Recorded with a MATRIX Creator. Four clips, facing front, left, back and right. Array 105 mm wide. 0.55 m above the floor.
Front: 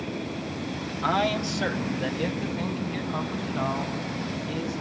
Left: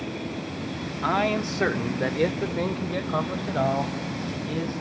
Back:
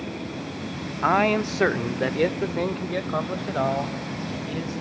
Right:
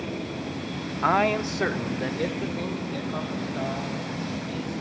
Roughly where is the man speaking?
Behind right.